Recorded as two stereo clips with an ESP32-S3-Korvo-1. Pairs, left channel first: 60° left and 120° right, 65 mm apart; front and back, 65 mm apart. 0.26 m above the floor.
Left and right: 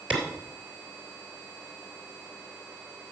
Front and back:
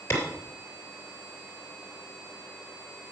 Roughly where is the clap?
Ahead right.